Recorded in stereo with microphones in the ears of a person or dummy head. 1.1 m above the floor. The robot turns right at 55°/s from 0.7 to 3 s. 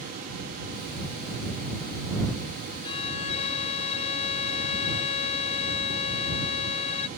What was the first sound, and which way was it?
A violin, 30° left (ahead or behind).